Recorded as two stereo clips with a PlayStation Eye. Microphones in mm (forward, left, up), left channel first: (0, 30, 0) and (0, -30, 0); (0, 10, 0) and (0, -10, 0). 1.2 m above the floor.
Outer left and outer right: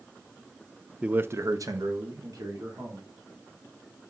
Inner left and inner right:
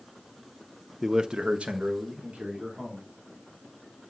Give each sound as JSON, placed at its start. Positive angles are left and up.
{"t": 1.0, "sound": "a man speaking", "side_deg": -15, "distance_m": 0.7}